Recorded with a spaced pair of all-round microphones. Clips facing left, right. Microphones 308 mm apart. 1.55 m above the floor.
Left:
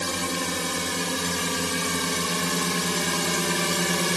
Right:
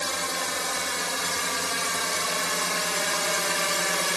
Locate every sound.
0.0 s a drone: 45° left (ahead or behind); by 4.2 s 50° left (ahead or behind)